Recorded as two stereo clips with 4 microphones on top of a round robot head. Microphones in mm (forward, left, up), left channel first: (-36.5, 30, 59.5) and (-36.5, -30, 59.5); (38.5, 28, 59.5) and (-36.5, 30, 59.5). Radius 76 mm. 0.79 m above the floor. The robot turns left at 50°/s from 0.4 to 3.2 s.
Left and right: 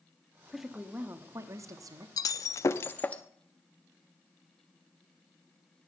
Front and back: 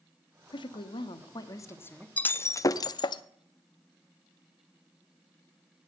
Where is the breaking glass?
70° left, 0.6 m; by 3.2 s 15° left, 0.6 m.